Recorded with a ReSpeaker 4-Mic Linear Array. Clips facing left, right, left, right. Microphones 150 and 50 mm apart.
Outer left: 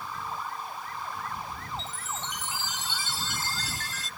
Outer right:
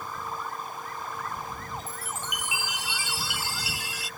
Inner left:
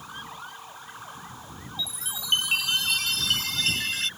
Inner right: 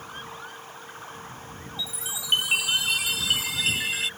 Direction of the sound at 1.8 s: 10° right (ahead or behind).